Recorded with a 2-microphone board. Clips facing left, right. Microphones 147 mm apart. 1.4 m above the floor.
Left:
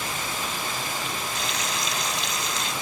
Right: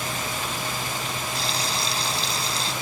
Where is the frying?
30° right (ahead or behind).